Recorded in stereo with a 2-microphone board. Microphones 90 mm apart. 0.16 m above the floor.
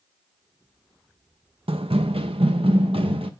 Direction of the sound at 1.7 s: 80° right.